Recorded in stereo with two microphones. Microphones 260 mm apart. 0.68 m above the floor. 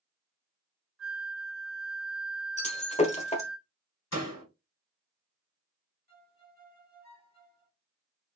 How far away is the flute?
About 2.5 m.